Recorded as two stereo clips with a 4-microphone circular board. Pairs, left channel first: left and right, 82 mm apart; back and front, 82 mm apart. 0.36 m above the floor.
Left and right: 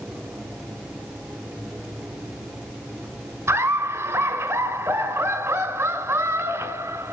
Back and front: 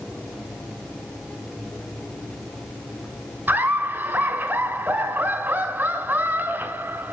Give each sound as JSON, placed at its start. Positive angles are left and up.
{"t": 3.5, "sound": "laughter", "azimuth_deg": -55, "distance_m": 1.8}